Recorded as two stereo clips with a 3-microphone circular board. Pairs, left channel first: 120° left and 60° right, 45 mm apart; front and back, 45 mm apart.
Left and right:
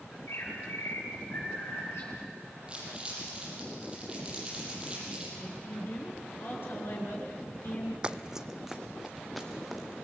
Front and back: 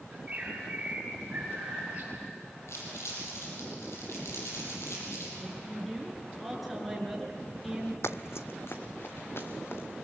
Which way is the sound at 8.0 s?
5° left.